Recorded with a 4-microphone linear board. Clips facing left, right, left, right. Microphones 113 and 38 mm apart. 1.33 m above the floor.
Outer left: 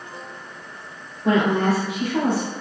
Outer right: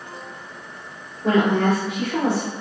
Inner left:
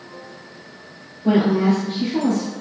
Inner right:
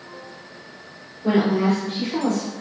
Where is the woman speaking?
35° right (ahead or behind), 1.8 m; by 2.5 s 70° right (ahead or behind), 0.9 m.